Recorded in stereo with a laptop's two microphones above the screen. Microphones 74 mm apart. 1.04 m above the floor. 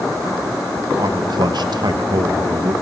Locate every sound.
1.0 s a man speaking: 60° right (ahead or behind), 1.2 m